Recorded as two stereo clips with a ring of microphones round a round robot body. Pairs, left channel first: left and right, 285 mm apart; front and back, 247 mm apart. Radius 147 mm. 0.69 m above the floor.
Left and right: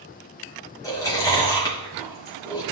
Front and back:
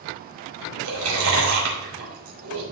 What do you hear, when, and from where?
0.8 s chewing: 170° left, 4 m